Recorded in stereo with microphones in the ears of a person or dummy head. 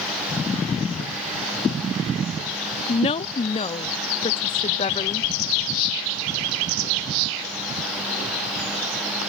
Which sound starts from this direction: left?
A woman speaking, at 2.9 s.